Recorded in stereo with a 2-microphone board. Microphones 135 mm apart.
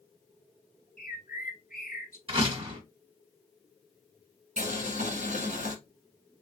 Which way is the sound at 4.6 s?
60° right (ahead or behind).